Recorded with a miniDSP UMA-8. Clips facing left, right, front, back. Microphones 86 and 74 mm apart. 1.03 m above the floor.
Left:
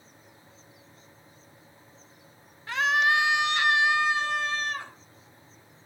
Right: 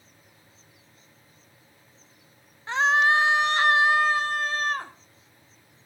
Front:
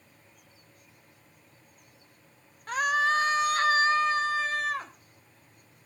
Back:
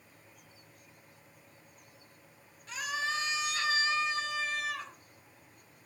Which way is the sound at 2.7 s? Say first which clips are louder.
Right 3 dB, front 10 dB; 30° right.